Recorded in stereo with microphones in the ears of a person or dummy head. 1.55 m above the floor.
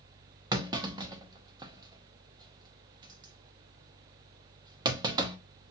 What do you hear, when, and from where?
0.5 s a clunk: 20° right (ahead or behind), 0.9 m